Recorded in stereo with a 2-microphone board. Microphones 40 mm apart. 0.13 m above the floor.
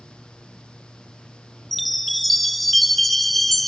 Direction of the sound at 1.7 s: Centre (ahead or behind).